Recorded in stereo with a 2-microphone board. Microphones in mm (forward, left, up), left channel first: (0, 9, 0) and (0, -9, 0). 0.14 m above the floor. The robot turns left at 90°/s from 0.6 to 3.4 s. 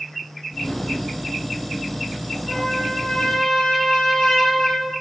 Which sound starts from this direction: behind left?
A trumpet, at 2.5 s.